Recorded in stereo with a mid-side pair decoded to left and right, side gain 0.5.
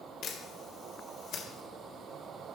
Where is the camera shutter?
55° left, 2.0 m.